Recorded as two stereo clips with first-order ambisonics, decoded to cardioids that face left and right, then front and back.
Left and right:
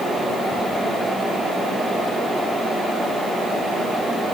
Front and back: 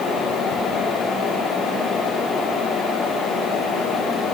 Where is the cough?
I don't hear a cough.